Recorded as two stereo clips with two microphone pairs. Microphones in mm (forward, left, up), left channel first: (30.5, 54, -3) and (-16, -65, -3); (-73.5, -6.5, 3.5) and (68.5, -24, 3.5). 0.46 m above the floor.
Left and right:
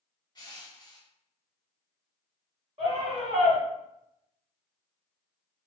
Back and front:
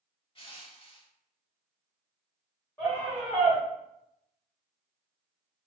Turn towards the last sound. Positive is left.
turn(degrees=-115)